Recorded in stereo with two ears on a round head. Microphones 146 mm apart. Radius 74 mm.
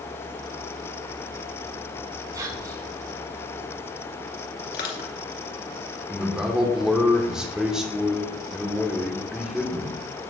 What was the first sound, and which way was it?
Whispering, 30° right (ahead or behind).